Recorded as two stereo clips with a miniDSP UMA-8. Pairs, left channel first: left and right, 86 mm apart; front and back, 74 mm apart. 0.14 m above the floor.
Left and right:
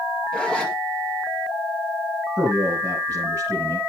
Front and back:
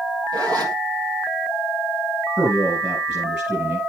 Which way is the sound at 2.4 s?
135° right.